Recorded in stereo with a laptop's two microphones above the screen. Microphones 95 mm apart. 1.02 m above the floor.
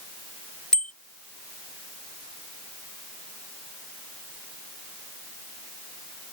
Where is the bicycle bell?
10° left (ahead or behind).